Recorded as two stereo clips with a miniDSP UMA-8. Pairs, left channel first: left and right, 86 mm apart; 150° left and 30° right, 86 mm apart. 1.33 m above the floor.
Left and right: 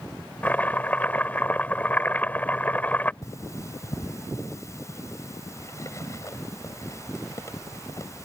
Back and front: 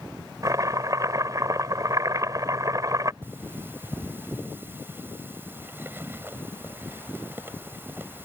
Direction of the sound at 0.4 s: 20° left.